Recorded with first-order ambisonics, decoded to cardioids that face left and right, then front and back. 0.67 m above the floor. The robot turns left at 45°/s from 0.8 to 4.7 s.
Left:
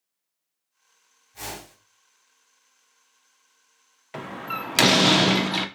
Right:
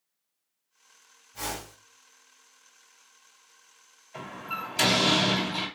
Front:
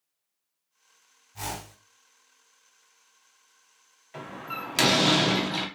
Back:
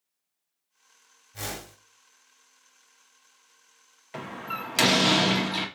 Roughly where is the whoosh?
Behind.